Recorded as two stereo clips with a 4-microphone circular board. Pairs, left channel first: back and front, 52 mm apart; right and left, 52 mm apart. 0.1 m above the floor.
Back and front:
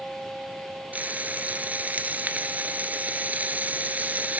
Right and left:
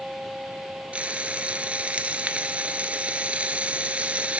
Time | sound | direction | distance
0.9 | frying | 40° left | 0.6 m